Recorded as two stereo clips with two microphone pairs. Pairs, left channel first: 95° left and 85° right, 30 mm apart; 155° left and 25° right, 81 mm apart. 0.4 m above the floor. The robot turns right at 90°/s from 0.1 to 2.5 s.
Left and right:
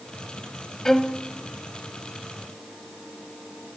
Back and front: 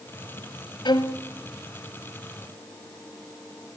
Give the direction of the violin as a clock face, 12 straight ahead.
6 o'clock.